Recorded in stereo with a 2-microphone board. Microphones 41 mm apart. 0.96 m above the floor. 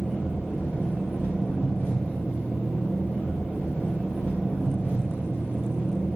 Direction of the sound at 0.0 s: 60° left (ahead or behind).